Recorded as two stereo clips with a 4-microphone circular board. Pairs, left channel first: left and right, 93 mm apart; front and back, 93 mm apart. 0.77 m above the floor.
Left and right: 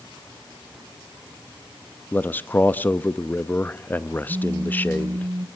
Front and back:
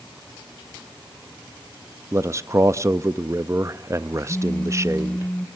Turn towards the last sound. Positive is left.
turn(degrees=-70)